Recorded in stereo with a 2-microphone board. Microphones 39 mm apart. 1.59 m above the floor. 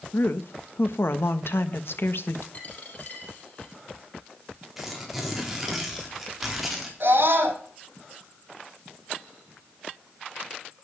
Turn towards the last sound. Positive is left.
turn(degrees=-60)  # may be behind; listen again after turning